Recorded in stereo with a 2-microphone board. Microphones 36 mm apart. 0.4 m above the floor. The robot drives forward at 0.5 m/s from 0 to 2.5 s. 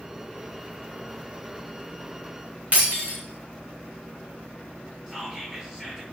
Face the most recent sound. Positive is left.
turn(degrees=-10)  # may be behind; listen again after turning